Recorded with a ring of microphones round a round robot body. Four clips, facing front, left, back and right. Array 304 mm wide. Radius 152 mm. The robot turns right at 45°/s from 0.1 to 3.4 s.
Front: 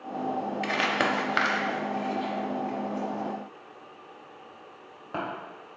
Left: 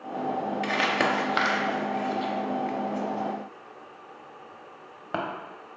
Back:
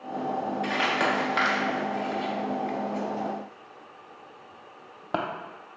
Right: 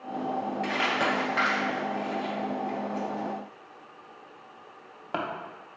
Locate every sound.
0.6 s crumpling: 35° left, 0.5 m; by 5.2 s 160° left, 0.5 m